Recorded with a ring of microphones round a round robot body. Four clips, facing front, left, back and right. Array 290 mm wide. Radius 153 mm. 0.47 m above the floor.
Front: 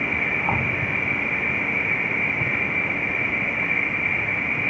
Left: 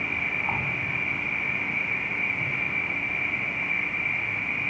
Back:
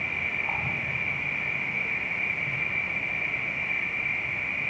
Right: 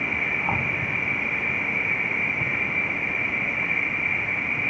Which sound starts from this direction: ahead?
An insect, at 0.0 s.